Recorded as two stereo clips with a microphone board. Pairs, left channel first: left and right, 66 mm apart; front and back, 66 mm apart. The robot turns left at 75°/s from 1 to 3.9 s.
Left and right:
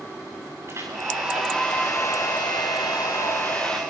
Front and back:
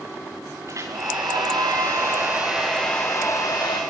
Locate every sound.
0.7 s a hair dryer: 140° right, 8.5 m; by 3.8 s 10° left, 8.5 m